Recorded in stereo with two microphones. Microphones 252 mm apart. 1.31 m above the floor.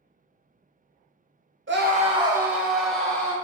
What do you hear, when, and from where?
1.7 s a scream: 50° right (ahead or behind), 0.8 m; by 3.3 s 5° left (ahead or behind), 2.5 m